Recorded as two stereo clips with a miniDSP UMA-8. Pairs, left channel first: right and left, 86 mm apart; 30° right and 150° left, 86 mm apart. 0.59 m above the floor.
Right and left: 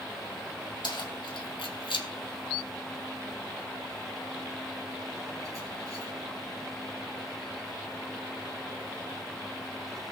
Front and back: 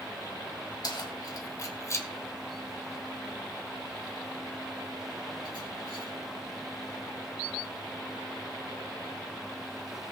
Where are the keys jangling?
65° right, 2.5 m; by 6.1 s 135° left, 4 m.